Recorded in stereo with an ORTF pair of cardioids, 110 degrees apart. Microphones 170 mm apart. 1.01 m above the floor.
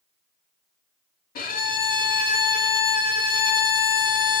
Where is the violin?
55° left, 1.3 m.